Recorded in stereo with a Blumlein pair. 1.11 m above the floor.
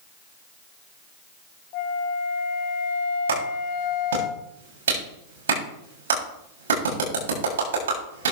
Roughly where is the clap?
Ahead right.